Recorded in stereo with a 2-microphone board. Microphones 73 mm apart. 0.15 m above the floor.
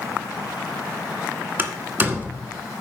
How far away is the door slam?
About 1.5 m.